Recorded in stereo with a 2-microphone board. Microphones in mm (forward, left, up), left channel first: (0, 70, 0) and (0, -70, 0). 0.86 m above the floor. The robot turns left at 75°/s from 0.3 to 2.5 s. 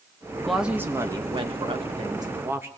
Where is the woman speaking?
Straight ahead, 0.9 m; by 2.7 s 150° right, 0.9 m.